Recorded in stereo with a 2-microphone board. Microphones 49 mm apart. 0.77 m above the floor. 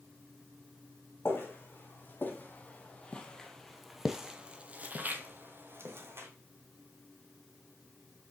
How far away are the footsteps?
About 1.8 m.